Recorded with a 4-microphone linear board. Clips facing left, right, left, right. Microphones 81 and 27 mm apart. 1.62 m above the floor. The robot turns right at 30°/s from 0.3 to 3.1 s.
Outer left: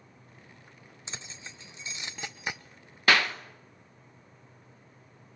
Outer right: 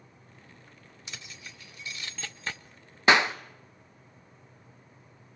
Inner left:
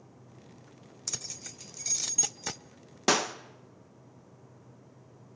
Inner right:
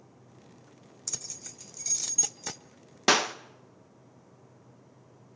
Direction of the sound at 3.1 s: 20° right (ahead or behind).